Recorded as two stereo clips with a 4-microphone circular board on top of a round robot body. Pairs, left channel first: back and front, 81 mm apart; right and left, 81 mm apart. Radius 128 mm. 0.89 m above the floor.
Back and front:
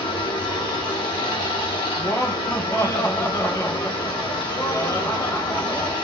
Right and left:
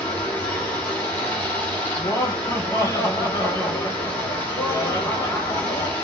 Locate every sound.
0.0 s running water: 160° right, 1.1 m
2.0 s laughter: 130° right, 1.0 m